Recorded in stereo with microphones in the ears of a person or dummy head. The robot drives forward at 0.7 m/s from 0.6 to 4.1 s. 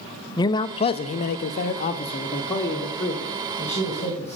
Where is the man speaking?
30° left (ahead or behind), 0.6 m; by 4.4 s 10° left (ahead or behind), 2 m.